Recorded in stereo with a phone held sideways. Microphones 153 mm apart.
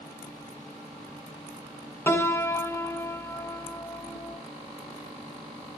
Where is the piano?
15° left (ahead or behind), 1.5 m.